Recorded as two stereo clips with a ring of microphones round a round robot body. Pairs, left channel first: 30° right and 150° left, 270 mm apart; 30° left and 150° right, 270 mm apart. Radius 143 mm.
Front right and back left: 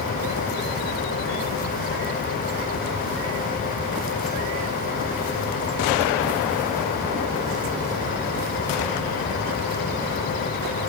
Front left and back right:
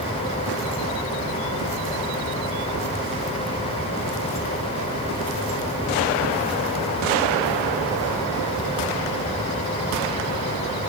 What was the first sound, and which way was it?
Only background noise.